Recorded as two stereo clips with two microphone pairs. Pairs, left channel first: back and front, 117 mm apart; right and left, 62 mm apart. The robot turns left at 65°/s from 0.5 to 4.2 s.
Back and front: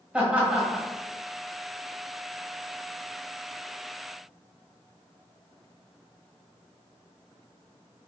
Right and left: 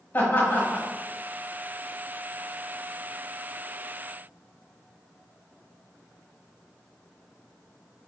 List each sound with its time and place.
0.1 s laughter: 75° right, 1.4 m; by 0.9 s 95° right, 1.4 m